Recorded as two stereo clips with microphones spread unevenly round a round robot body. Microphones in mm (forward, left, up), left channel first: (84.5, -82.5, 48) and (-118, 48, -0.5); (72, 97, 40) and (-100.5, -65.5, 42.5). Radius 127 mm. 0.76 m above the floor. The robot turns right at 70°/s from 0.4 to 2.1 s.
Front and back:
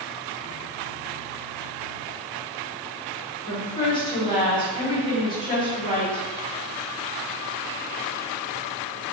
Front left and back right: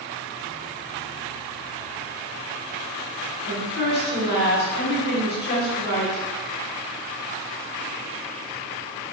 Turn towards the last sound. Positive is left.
turn(degrees=45)